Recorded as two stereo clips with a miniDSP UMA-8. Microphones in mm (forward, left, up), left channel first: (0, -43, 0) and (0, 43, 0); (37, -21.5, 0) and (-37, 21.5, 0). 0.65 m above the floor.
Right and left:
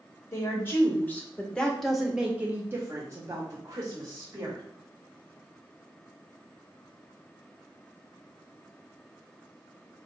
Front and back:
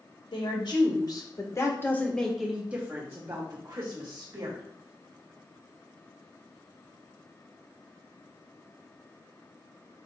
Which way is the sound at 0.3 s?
35° right.